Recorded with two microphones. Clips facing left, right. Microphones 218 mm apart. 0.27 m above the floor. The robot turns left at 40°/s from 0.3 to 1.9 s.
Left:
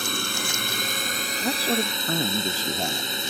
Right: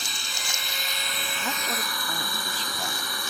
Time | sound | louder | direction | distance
0.0 | a drone | left 11 dB | 90° left | ?
1.4 | a man speaking | left 9 dB | 25° left (ahead or behind) | ?